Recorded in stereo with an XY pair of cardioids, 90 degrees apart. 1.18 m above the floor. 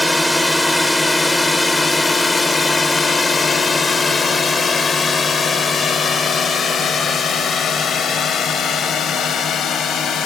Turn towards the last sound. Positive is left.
turn(degrees=65)